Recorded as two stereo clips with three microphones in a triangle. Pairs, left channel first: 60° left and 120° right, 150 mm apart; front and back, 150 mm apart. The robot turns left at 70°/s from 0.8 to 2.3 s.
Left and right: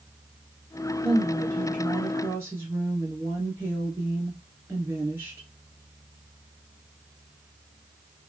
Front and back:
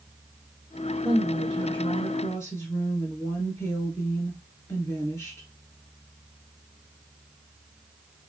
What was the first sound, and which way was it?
A woman speaking, 30° left.